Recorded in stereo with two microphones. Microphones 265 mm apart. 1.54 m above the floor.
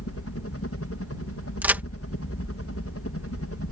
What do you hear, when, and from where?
0.0 s a helicopter: 60° left (ahead or behind)
1.6 s a crack: 5° right (ahead or behind)